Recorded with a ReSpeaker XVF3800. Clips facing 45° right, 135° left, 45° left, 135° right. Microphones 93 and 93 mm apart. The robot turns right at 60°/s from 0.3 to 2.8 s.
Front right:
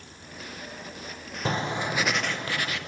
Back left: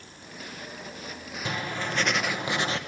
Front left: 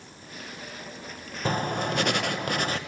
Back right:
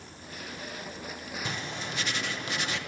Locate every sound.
1.4 s writing: 5° left, 0.9 m; by 2.8 s 85° left, 0.9 m